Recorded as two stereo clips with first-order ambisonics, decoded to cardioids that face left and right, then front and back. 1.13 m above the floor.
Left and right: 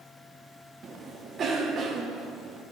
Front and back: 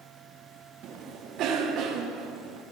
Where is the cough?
145° right, 0.8 m.